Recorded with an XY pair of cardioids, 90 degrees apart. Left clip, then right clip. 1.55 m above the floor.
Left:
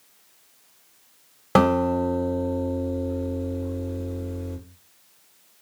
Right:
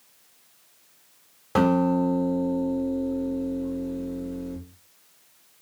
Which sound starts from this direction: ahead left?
A guitar, at 1.6 s.